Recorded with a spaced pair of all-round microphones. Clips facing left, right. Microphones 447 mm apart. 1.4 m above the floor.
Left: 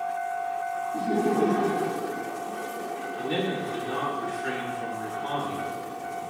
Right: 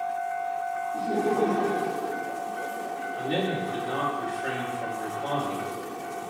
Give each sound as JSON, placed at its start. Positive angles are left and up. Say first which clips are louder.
{"t": 0.9, "sound": "laughter", "louder": "left 1 dB", "side_deg": 30, "distance_m": 0.6}
{"t": 3.1, "sound": "a man speaking", "louder": "even", "side_deg": 20, "distance_m": 3.0}